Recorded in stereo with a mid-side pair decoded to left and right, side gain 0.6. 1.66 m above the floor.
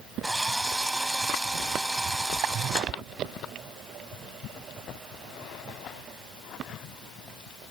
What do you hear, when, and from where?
0.2 s a drill: 10° right